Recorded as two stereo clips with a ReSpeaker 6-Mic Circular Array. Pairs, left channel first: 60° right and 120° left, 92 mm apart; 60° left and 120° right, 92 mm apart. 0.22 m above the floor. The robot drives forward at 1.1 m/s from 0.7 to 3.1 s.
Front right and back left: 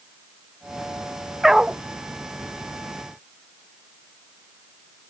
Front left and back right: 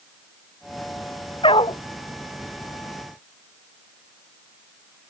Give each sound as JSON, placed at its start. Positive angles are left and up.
{"t": 1.4, "sound": "a dog barking", "azimuth_deg": 35}